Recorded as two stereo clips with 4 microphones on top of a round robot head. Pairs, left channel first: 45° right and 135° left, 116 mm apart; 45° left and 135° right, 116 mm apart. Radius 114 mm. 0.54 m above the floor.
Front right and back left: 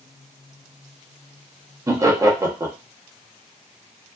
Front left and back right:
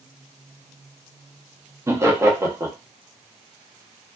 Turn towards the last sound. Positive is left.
turn(degrees=180)